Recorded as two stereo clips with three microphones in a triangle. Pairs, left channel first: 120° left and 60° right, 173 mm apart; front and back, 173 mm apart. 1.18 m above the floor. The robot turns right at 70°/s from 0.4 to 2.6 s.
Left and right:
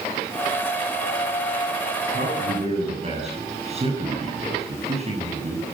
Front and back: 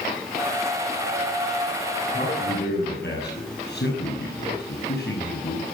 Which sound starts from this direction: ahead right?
A man speaking, at 2.1 s.